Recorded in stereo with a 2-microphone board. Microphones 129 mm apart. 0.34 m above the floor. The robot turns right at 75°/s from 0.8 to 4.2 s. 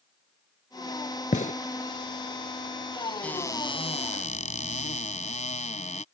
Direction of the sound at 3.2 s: 10° left.